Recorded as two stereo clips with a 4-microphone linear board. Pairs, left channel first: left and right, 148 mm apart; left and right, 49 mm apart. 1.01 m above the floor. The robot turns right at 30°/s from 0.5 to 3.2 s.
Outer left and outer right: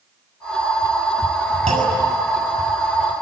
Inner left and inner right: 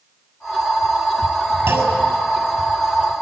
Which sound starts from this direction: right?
A clunk, at 1.7 s.